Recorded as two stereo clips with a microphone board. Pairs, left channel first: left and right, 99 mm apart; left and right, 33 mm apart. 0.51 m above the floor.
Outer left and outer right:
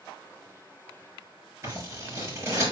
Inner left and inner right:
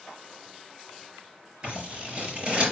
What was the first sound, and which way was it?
Scissors, 30° right (ahead or behind).